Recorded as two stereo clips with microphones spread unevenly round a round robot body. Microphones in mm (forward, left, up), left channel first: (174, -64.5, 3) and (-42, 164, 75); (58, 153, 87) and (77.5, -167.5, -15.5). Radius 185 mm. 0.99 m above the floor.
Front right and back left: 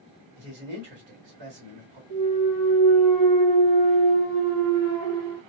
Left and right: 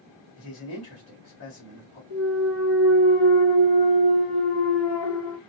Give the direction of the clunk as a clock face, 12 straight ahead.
7 o'clock.